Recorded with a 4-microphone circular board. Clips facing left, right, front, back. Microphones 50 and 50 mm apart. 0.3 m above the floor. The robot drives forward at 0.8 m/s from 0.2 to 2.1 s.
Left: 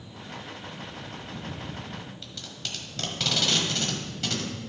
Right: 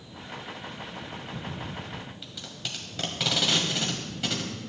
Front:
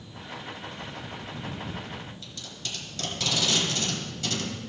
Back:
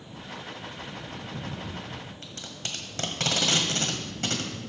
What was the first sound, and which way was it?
Tape being pulled, 165° right.